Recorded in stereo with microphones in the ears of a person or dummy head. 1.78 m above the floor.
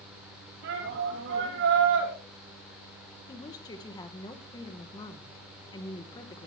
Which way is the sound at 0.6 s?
65° right (ahead or behind).